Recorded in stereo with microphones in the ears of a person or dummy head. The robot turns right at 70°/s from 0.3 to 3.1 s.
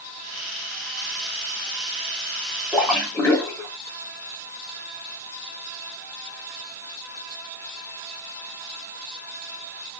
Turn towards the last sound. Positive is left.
turn(degrees=15)  # may be behind; listen again after turning